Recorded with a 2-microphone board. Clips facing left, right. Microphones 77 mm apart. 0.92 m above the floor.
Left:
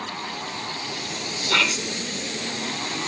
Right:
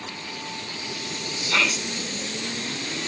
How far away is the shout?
About 3.5 m.